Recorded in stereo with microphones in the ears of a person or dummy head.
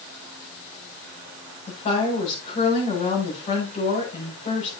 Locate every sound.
1.7 s a woman speaking: 40° left (ahead or behind), 8 m